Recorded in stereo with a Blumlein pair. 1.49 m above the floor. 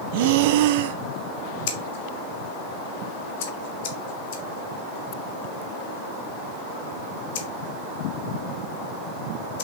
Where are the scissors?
50° left, 1.2 m.